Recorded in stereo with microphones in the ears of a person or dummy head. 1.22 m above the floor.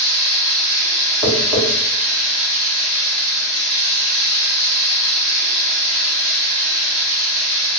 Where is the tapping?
25° right (ahead or behind), 1.4 m.